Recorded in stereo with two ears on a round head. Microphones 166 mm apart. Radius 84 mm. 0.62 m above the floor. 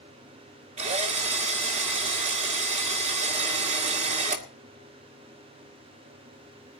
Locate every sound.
0.8 s a drill: 35° right (ahead or behind), 1.9 m